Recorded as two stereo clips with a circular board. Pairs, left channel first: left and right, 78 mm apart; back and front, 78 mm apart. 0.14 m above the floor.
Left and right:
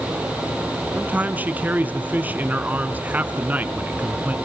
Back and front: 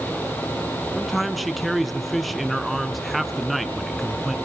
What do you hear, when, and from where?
0.9 s a man speaking: 90° right, 1.6 m